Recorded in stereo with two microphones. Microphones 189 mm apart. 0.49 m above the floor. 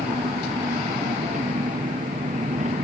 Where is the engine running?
40° right (ahead or behind).